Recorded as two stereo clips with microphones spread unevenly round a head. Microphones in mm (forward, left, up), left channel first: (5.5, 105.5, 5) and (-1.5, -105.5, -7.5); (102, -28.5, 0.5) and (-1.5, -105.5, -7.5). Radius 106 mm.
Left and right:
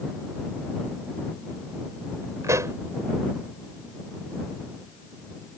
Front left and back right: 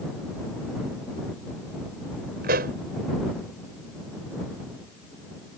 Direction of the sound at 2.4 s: 170° right.